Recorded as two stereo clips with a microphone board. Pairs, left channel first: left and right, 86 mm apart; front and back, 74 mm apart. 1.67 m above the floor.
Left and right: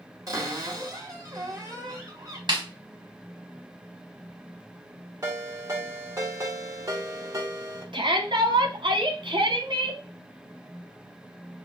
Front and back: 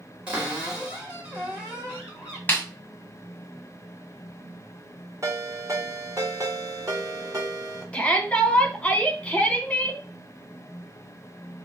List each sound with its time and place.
0.3 s a cupboard door: 110° right, 1.8 m
2.5 s a snare drum: 65° right, 1.2 m
5.2 s a ringtone: 135° right, 1.9 m
7.9 s a shout: 75° right, 1.4 m